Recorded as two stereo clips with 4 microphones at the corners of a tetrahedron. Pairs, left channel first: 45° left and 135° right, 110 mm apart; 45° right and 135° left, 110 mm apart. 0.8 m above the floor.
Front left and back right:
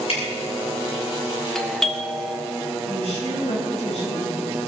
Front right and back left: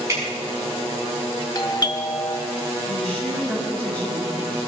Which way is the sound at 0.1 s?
70° left.